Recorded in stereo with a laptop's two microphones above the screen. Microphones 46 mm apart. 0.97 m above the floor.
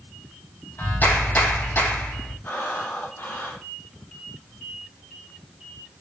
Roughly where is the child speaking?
I don't hear a child speaking.